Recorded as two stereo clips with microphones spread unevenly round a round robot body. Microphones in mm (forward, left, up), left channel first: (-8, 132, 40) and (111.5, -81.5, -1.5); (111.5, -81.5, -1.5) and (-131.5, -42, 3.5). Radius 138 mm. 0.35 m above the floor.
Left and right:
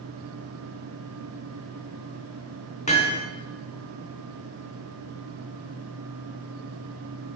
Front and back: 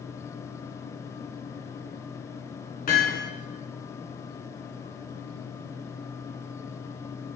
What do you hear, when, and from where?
2.9 s hammering: 55° left, 3.5 m